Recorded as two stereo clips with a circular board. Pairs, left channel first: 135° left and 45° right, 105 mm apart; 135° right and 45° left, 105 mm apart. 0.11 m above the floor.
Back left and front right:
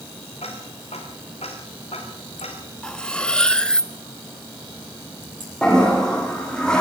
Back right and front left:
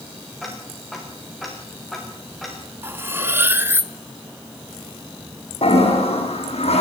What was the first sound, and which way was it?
Ticking, 135° left.